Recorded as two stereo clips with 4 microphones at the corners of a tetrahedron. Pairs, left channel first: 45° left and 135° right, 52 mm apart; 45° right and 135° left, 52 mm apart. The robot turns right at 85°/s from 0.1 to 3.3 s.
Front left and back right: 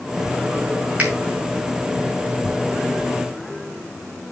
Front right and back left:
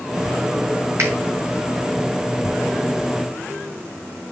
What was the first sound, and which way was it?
A finger snap, 160° left.